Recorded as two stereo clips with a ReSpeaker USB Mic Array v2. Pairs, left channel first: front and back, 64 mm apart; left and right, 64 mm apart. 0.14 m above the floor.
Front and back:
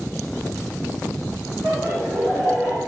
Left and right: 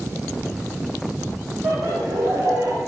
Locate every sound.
1.6 s laughter: 145° right, 7.5 m; by 2.8 s 135° right, 8.5 m